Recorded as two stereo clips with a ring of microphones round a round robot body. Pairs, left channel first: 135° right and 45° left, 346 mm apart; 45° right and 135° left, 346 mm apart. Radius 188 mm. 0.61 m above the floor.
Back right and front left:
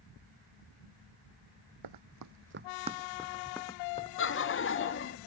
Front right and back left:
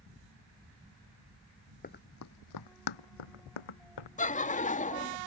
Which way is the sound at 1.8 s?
20° left.